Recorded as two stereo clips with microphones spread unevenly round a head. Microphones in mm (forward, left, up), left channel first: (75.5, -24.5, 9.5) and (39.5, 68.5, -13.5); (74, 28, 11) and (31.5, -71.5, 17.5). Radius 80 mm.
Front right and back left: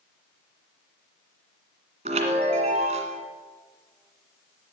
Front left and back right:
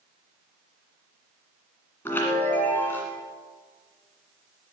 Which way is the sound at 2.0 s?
145° left.